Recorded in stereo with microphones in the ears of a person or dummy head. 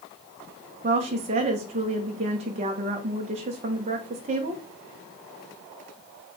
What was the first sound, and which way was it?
A woman speaking, 30° right (ahead or behind).